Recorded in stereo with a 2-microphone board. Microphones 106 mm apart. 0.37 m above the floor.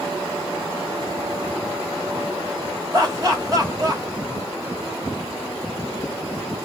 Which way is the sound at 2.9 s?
35° right (ahead or behind).